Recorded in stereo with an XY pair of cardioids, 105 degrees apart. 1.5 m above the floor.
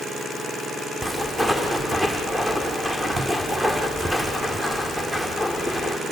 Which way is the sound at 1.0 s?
15° right.